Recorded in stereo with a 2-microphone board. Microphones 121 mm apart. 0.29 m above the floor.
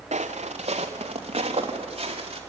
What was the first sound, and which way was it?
Footsteps, 60° right (ahead or behind).